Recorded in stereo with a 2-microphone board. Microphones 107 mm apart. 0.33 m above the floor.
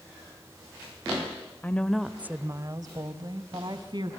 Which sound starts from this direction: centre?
A woman speaking, at 1.6 s.